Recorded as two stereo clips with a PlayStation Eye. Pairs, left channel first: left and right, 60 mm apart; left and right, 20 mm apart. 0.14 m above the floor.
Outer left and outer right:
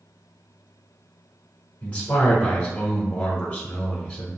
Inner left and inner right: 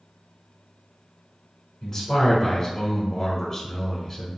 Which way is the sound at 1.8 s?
20° left (ahead or behind).